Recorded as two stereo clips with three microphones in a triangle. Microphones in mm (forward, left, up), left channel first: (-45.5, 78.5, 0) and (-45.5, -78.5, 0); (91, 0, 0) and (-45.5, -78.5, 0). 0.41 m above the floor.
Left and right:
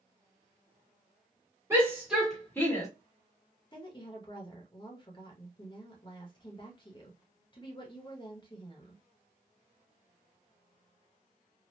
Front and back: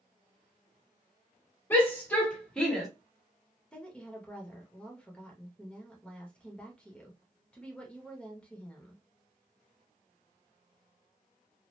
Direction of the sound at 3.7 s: 105° left.